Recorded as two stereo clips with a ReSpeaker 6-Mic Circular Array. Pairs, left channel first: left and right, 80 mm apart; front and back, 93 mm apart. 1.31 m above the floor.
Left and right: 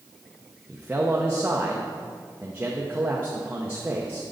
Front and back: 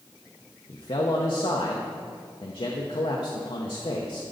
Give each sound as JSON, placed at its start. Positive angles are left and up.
{"t": 0.7, "sound": "a man speaking", "azimuth_deg": -20, "distance_m": 0.7}